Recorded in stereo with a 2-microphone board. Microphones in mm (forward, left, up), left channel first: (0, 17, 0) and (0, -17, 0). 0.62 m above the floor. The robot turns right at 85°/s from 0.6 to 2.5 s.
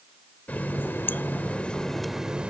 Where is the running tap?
55° left; by 2.5 s 145° right.